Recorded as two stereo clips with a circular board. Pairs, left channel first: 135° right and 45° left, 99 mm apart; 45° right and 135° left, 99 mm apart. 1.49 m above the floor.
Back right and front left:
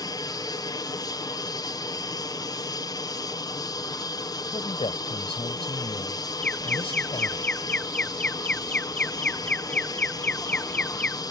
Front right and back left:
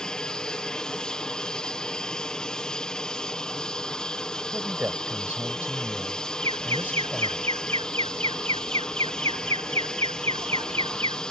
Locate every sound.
0.0 s an aircraft: 125° right
4.5 s a man speaking: 150° right
6.4 s an alarm: 150° left